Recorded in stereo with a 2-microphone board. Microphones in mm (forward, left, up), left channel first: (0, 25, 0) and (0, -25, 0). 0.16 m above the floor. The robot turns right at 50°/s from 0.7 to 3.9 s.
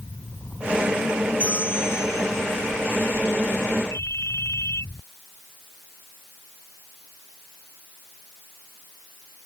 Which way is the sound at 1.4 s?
35° left.